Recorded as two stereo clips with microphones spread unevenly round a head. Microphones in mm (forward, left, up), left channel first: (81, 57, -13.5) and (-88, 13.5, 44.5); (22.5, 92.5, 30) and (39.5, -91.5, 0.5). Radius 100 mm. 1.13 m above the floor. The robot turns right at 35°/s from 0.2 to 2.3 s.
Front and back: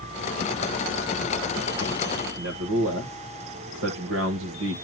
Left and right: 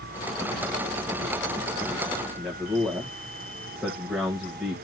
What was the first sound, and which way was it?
A man speaking, 170° right.